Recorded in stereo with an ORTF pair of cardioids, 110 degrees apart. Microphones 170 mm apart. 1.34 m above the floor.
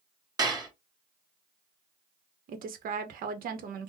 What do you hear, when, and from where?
0.4 s dishes clattering: 25° right, 1.3 m
2.5 s a woman speaking: 60° right, 0.9 m